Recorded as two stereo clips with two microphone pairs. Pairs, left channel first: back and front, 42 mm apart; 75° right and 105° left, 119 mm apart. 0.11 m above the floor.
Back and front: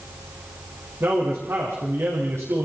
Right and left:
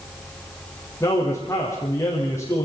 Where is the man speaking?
5° right, 6.5 m.